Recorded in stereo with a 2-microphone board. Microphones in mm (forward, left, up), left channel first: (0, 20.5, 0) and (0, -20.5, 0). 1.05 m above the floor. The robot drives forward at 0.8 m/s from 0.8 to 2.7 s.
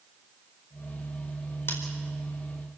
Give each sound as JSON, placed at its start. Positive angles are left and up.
{"t": 1.7, "sound": "scissors", "side_deg": 70, "distance_m": 4.5}